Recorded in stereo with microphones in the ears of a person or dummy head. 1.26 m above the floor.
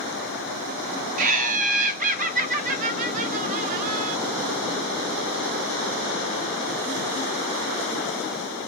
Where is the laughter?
45° right (ahead or behind), 0.8 m.